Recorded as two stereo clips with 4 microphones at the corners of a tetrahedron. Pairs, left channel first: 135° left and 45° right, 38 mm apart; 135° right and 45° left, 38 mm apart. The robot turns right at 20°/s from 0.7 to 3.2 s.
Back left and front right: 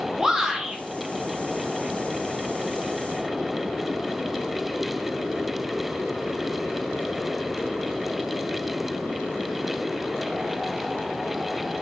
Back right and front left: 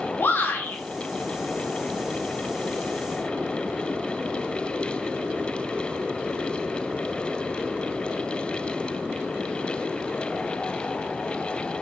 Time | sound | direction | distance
0.2 | a shout | 120° right | 0.9 m